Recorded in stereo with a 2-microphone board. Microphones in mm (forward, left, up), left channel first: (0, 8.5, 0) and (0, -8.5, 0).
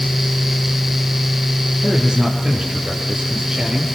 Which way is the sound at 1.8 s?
60° right (ahead or behind).